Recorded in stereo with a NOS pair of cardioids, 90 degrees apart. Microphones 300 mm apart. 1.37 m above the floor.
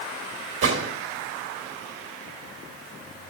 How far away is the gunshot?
About 2.5 m.